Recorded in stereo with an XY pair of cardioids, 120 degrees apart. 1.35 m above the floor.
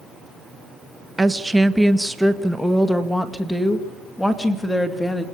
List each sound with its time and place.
1.2 s a woman speaking: 15° right, 1.1 m; by 5.2 s 10° left, 3 m